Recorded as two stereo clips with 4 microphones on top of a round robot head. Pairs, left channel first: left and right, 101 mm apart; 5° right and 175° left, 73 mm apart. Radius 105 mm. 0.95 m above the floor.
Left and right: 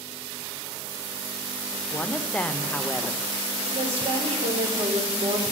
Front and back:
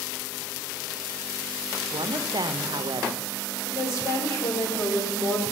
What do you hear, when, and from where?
1.9 s a woman speaking: 165° left, 0.7 m
3.6 s a woman speaking: 55° right, 2.5 m